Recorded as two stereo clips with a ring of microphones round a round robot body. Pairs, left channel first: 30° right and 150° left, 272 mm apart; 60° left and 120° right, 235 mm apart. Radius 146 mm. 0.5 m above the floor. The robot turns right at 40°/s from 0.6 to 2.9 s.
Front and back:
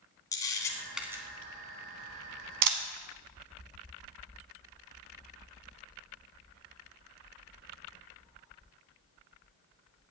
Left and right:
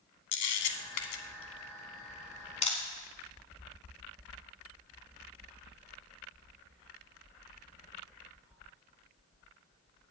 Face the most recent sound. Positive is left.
turn(degrees=140)